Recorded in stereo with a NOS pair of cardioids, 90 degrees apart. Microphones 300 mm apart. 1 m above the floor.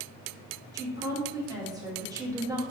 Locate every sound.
0.7 s a woman speaking: 10° right, 1.2 m